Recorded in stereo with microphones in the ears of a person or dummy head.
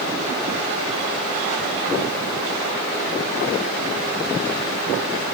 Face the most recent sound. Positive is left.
No sound to turn to.